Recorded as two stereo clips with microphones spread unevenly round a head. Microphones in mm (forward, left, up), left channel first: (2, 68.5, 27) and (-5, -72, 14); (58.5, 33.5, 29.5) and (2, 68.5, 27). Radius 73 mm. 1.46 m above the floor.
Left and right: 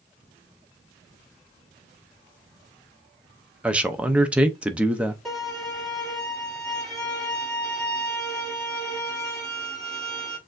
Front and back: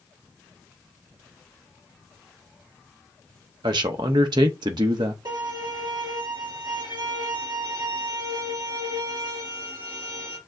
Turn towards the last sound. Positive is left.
turn(degrees=175)